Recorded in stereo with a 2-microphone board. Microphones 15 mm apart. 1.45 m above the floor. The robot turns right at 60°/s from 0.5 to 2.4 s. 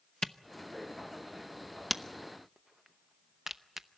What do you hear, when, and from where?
0.2 s a camera shutter: 35° left (ahead or behind), 0.7 m; by 3.9 s 25° right (ahead or behind), 0.7 m